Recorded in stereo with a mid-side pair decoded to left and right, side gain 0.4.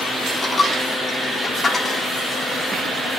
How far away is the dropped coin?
About 5.5 m.